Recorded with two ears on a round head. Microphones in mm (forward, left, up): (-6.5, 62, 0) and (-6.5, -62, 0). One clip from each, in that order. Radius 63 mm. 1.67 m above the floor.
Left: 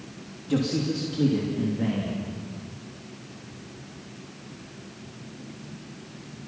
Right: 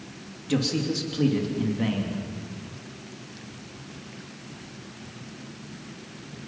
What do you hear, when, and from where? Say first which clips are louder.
0.5 s a man speaking: even; 60° right (ahead or behind), 2.5 m